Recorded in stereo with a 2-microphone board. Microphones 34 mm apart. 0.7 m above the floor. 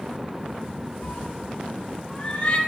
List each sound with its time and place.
1.0 s a cat meowing: 35° left (ahead or behind), 2.5 m; by 2.6 s 25° left (ahead or behind), 3.5 m